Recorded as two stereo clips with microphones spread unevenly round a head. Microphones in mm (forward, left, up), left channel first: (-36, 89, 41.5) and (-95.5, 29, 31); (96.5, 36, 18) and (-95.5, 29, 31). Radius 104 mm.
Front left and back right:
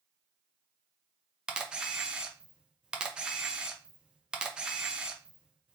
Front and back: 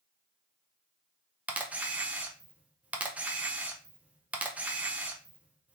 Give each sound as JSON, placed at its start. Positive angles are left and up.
{"t": 1.5, "sound": "a camera shutter", "azimuth_deg": -95, "distance_m": 0.5}